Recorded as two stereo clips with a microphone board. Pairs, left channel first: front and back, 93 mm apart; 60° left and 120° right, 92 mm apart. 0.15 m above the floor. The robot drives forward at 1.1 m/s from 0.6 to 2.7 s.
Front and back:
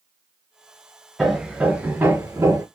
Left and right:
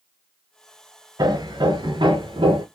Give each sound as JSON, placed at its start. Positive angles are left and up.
{"t": 1.2, "sound": "hammering", "azimuth_deg": -90, "distance_m": 2.0}